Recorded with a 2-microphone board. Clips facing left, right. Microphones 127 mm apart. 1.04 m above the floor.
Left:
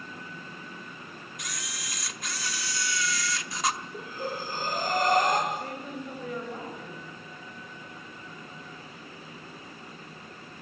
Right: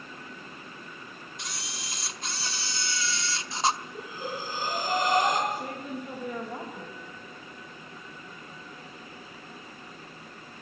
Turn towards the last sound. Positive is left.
turn(degrees=-15)  # may be behind; listen again after turning